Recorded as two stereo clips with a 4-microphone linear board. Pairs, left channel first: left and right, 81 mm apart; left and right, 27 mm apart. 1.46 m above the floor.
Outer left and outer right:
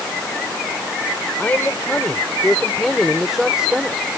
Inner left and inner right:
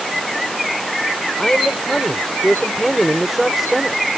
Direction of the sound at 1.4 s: 20° left (ahead or behind).